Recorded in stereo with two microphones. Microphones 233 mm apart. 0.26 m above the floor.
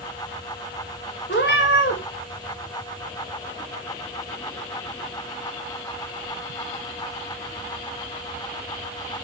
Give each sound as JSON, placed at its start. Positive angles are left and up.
{"t": 1.3, "sound": "a cat meowing", "side_deg": 50, "distance_m": 2.0}